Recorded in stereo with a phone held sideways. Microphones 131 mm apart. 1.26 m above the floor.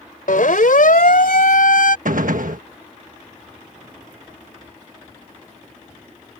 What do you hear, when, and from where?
0.3 s a siren: 85° left; by 1.9 s 90° left
2.0 s a gunshot: 80° right